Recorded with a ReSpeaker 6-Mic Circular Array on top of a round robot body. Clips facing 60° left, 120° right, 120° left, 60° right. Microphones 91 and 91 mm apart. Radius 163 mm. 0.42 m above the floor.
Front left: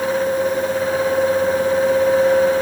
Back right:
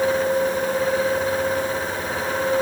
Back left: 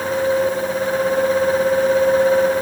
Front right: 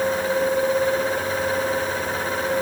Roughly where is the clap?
No clap in this recording.